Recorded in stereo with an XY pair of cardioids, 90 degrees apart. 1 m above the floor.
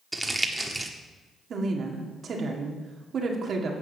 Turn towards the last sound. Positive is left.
turn(degrees=-60)